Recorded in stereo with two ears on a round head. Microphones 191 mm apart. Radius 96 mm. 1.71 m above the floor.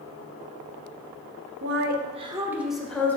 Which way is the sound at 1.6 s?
60° right (ahead or behind).